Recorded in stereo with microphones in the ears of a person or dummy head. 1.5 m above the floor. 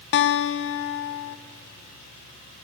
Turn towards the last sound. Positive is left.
turn(degrees=65)  # may be behind; listen again after turning